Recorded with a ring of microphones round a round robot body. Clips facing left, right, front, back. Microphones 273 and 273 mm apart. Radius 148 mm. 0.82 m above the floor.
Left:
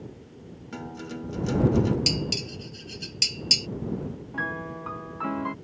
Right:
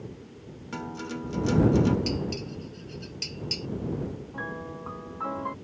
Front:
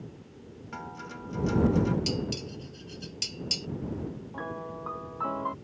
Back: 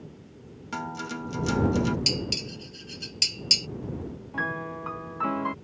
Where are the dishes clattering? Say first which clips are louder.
Even, even; 135° left.